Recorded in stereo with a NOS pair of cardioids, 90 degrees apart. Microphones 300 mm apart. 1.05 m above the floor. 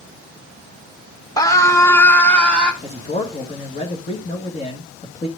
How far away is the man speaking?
About 1.6 m.